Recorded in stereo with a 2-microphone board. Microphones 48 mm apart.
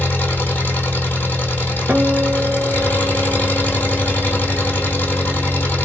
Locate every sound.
0.0 s an engine running: 40° left (ahead or behind), 1.4 m
1.9 s a guitar: 35° right (ahead or behind), 1.5 m